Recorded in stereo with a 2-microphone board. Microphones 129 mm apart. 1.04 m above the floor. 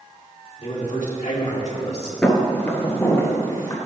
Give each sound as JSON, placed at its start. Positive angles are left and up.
{"t": 0.6, "sound": "a man speaking", "side_deg": 55, "distance_m": 1.9}
{"t": 2.2, "sound": "footsteps", "side_deg": 5, "distance_m": 1.0}